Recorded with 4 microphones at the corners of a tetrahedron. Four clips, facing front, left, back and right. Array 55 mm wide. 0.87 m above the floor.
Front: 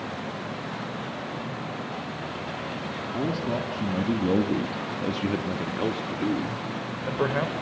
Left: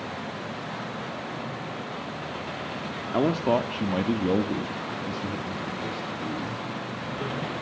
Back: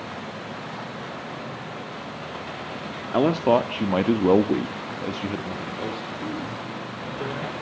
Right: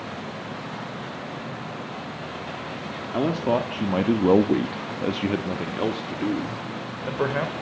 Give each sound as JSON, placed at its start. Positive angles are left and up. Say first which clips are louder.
{"t": 3.1, "sound": "a man speaking", "louder": "even, back 10 dB", "azimuth_deg": 170, "distance_m": 1.7}